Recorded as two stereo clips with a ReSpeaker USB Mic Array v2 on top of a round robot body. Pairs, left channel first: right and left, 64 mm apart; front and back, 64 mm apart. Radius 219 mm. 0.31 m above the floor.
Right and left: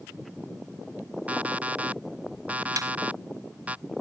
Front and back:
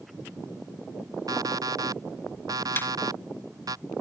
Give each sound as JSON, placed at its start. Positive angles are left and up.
{"t": 1.3, "sound": "an alarm clock", "azimuth_deg": 155}
{"t": 2.8, "sound": "a snare drum", "azimuth_deg": 60}